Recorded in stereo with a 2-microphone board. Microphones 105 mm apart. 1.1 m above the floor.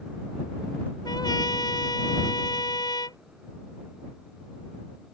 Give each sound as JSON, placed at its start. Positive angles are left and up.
{"t": 1.1, "sound": "a trumpet", "side_deg": 35}